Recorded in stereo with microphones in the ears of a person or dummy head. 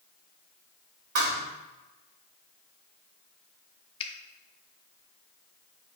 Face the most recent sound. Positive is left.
turn(degrees=35)  # may be behind; listen again after turning